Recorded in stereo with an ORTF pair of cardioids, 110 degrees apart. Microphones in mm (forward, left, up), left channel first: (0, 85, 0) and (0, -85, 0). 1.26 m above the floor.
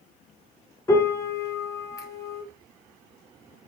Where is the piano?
20° left, 0.8 m.